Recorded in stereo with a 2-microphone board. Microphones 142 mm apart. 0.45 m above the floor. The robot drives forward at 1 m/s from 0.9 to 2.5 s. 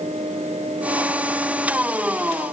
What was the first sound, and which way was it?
Only background noise.